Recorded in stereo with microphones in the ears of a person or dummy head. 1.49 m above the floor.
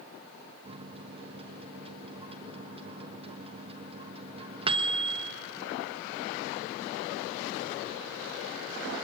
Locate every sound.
0.7 s a microwave: 30° right (ahead or behind), 1.2 m